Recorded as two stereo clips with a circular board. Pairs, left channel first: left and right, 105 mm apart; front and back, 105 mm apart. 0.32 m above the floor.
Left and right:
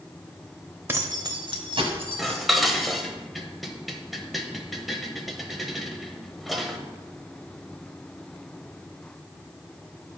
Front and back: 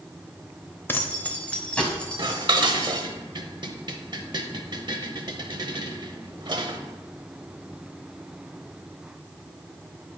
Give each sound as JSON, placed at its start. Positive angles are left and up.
{"t": 0.9, "sound": "keys jangling", "azimuth_deg": -45, "distance_m": 0.7}
{"t": 2.2, "sound": "dishes clattering", "azimuth_deg": 180, "distance_m": 0.7}